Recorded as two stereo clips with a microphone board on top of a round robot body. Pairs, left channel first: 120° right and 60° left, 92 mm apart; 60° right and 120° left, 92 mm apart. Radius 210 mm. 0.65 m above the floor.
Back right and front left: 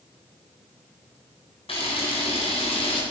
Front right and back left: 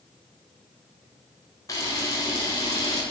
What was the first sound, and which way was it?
A camera shutter, 110° right.